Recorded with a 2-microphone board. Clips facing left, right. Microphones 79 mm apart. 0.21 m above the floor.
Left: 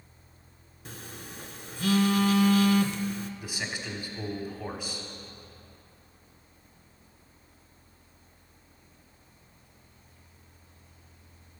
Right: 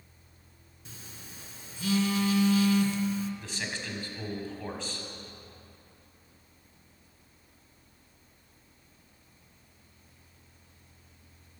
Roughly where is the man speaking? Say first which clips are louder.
Left 1 dB; centre.